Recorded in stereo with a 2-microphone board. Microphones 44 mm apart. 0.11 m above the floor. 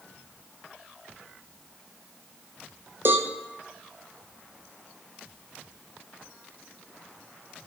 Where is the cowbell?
55° right (ahead or behind), 0.8 m.